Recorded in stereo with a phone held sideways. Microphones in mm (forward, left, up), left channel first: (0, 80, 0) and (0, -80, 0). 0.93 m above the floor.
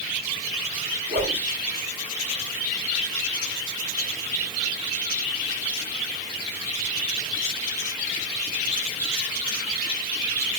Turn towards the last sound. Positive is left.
turn(degrees=-75)  # may be behind; listen again after turning